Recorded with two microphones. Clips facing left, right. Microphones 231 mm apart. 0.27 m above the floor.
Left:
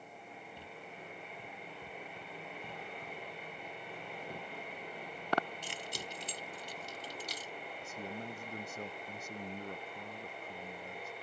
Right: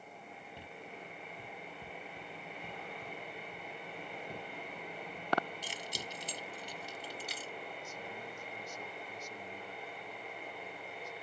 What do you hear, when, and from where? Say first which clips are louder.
5.6 s keys jangling: even; 60° left (ahead or behind); by 7.5 s 40° left (ahead or behind)
7.8 s a man speaking: left 3 dB; 55° left (ahead or behind)